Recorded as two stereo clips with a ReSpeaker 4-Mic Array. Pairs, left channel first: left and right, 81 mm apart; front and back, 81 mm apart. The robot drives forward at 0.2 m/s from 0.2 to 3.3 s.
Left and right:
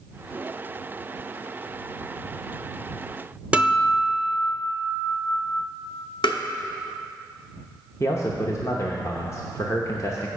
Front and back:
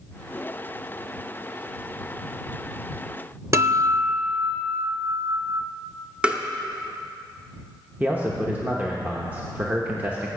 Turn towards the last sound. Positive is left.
turn(degrees=120)